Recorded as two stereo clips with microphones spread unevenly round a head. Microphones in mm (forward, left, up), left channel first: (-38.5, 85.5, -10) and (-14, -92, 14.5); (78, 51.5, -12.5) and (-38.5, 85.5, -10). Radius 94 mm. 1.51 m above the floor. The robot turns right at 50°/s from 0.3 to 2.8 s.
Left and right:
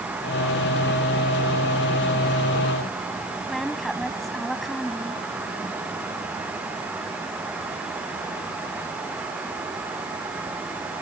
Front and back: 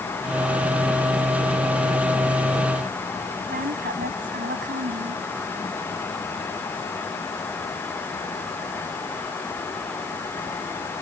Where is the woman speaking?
170° right.